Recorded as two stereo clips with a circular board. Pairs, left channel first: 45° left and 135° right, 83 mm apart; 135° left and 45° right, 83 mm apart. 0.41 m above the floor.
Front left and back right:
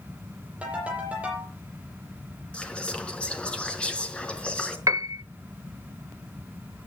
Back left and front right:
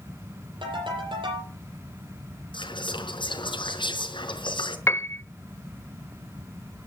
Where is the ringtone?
60° right, 10 m.